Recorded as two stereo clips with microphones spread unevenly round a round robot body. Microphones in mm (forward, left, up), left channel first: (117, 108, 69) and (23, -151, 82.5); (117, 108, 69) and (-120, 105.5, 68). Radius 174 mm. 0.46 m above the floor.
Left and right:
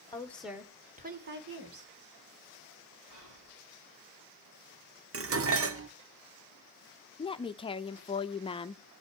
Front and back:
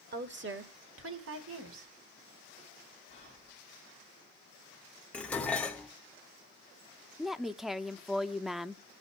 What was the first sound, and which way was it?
A woman speaking, 140° left.